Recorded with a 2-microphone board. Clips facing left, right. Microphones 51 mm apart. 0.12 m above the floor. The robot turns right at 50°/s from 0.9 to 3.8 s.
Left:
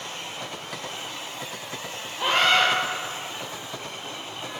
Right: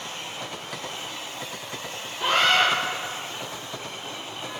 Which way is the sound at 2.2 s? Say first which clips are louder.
Even; 10° left (ahead or behind).